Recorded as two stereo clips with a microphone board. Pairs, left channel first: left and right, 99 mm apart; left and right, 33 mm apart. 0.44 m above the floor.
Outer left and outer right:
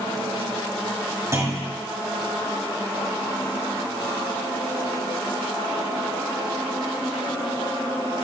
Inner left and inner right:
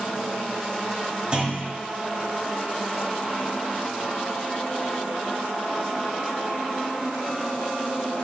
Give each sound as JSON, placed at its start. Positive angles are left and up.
{"t": 1.3, "sound": "a clunk", "side_deg": -30, "distance_m": 5.5}